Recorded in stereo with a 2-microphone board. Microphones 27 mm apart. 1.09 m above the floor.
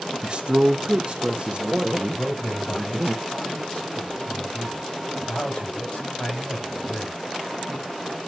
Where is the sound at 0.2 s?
40° right (ahead or behind), 0.7 m.